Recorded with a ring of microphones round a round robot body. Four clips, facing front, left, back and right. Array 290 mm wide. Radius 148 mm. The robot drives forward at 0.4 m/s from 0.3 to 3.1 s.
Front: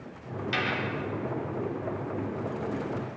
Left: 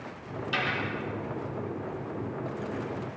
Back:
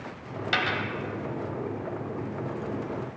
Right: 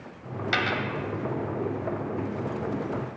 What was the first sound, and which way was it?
A dropped coin, 130° right.